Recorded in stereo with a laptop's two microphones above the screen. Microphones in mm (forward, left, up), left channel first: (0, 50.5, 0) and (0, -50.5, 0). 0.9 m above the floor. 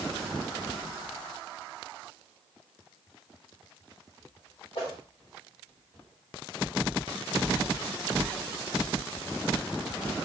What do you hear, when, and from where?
4.8 s a whoosh: 65° left (ahead or behind), 1.0 m